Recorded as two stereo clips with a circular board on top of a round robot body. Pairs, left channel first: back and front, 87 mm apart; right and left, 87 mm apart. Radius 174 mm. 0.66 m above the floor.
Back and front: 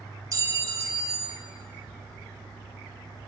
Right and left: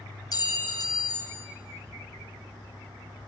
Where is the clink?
50° right, 0.8 m.